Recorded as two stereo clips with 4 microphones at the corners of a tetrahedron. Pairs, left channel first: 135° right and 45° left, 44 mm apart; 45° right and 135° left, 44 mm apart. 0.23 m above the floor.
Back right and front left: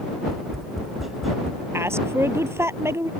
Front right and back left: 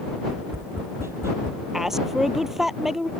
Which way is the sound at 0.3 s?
135° left.